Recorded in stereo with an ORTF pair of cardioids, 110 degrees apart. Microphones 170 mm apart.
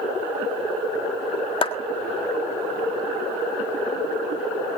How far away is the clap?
About 1.7 m.